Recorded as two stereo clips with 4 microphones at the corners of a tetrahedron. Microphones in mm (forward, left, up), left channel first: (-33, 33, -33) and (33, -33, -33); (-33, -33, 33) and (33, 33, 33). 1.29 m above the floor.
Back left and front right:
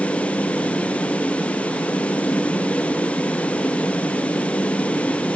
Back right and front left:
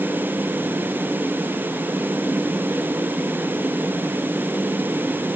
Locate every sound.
Only background noise.